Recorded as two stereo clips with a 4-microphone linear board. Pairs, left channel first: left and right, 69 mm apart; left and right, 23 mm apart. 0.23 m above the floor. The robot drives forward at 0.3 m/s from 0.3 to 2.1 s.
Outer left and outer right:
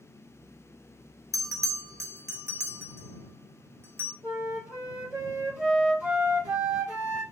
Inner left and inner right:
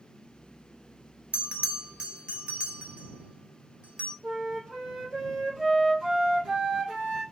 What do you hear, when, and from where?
1.3 s a bell: 60° right (ahead or behind), 0.6 m; by 4.1 s 45° right (ahead or behind), 0.7 m
4.2 s a flute: 25° right (ahead or behind), 3 m